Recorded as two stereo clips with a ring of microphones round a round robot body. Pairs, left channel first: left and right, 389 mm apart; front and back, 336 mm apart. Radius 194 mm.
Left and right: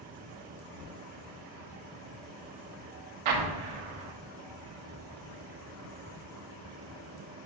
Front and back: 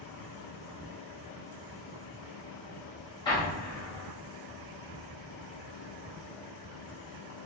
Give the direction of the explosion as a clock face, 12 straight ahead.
3 o'clock.